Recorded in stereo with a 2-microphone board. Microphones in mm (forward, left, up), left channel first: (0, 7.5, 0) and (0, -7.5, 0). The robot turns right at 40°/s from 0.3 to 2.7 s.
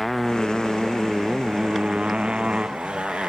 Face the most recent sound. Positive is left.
turn(degrees=-85)